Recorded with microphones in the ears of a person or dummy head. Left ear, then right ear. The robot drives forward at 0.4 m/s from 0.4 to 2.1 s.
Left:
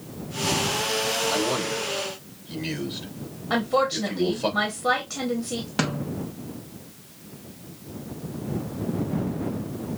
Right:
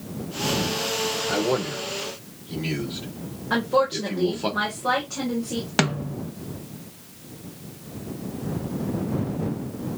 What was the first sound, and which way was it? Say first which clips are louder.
A man speaking: even; centre (ahead or behind).